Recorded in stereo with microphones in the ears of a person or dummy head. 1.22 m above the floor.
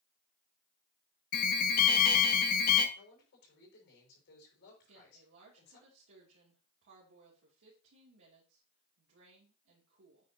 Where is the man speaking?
60° left (ahead or behind), 6 m.